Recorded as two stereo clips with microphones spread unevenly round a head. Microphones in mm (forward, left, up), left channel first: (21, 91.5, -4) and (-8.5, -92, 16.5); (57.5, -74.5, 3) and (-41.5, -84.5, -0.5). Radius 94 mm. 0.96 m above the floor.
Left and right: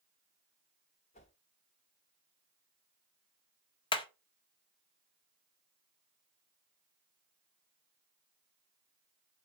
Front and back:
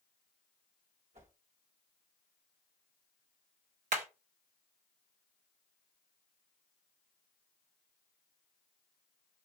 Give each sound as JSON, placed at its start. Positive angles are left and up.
{"t": 1.1, "sound": "a whoosh", "azimuth_deg": 140, "distance_m": 1.7}
{"t": 3.9, "sound": "hammering", "azimuth_deg": 145, "distance_m": 1.3}